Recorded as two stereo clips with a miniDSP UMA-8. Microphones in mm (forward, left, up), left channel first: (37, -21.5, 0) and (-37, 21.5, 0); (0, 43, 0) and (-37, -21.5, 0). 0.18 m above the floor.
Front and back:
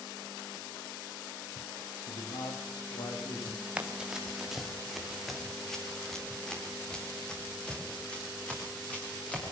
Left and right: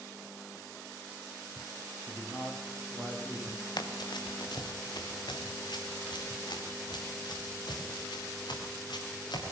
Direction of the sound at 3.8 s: 75° left.